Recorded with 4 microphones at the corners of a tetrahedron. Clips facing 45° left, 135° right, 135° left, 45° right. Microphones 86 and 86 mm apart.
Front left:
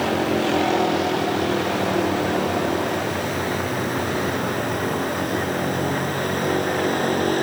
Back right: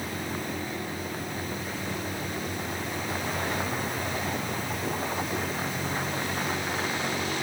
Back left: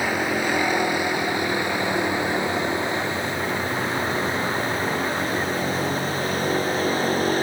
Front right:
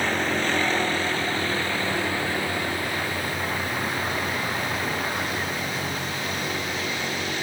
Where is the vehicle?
55° left; by 7.4 s 85° left.